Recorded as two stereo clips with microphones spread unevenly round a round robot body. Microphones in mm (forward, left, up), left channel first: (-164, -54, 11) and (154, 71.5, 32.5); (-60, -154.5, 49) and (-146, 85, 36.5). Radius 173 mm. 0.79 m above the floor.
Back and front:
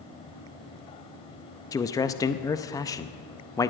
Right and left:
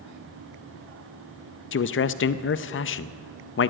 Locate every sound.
1.7 s a man speaking: 85° right, 0.6 m